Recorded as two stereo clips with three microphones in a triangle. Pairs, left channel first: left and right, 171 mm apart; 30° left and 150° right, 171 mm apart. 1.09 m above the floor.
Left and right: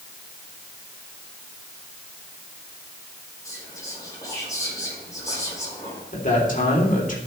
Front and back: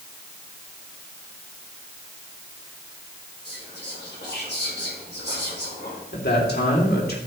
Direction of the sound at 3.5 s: 20° left.